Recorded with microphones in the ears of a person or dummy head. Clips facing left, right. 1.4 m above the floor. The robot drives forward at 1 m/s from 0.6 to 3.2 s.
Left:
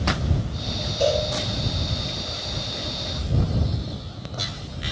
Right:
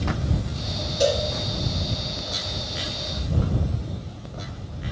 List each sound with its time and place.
1.0 s a cowbell: 15° right (ahead or behind), 3 m